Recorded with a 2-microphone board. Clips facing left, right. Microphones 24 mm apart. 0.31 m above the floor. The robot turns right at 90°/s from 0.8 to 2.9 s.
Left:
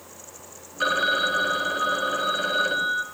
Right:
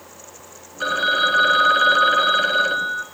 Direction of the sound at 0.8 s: 175° left.